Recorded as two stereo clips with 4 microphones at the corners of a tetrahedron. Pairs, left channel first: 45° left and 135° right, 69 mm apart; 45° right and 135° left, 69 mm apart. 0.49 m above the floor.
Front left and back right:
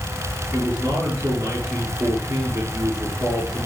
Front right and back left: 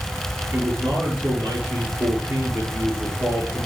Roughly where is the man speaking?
Behind right.